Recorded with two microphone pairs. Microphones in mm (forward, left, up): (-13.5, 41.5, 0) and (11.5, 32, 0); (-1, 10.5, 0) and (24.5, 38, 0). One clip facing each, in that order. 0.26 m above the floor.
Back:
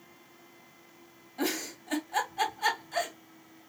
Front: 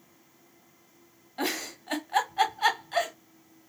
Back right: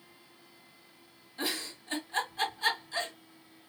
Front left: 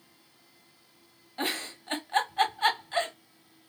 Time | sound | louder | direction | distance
1.4 | a giggle | front 1 dB, front left 3 dB | 20° left | 1.2 m